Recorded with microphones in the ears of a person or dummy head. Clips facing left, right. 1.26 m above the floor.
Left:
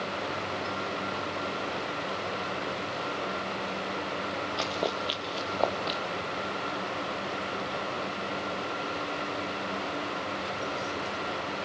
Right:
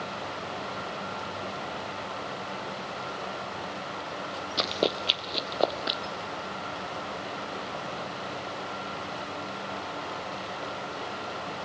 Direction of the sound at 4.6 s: 20° right (ahead or behind).